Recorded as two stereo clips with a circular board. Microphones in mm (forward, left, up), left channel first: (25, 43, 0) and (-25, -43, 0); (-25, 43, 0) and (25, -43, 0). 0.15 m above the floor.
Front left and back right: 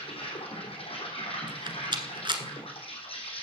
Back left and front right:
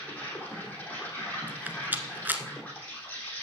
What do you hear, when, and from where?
0.0 s an insect: 45° left, 3.5 m
1.5 s a rattle: 125° right, 1.0 m